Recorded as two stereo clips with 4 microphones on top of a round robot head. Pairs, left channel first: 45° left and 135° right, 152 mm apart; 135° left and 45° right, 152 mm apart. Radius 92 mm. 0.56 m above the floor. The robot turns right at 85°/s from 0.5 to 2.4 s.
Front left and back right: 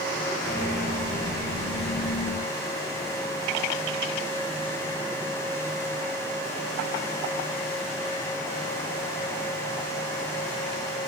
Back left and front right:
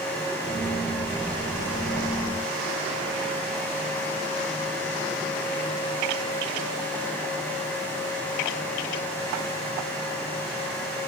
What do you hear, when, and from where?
Only background noise.